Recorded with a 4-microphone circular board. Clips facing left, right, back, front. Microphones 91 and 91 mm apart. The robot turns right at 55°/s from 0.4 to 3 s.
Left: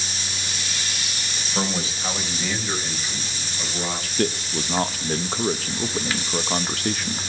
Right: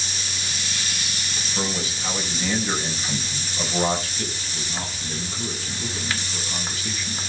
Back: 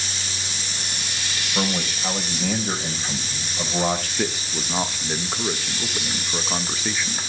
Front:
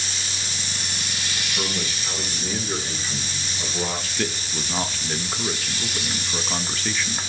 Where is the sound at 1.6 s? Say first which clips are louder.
Left 2 dB, back 6 dB; 135° left, 3.5 m; by 4.1 s 145° right, 3.5 m.